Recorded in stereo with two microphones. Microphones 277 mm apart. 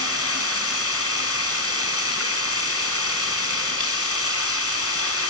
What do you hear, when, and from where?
0.0 s running water: 60° left (ahead or behind), 4.5 m